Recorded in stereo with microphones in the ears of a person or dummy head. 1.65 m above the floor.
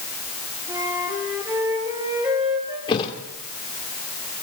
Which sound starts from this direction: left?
A thud, at 2.9 s.